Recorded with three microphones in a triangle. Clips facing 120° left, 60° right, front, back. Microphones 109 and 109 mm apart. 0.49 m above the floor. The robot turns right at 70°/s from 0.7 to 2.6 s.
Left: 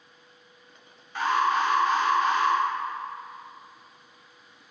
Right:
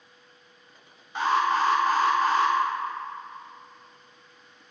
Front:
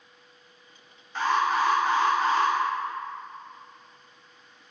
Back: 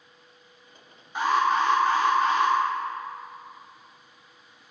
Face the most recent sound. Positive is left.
turn(degrees=-15)